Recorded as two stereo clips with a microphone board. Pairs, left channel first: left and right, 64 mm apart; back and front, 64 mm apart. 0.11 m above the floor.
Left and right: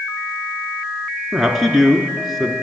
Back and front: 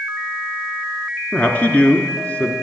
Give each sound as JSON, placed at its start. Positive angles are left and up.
{"t": 1.3, "sound": "a man speaking", "azimuth_deg": -175, "distance_m": 1.1}